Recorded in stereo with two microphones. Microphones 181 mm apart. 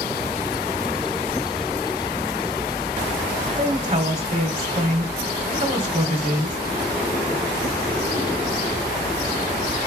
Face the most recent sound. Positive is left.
turn(degrees=-40)  # may be behind; listen again after turning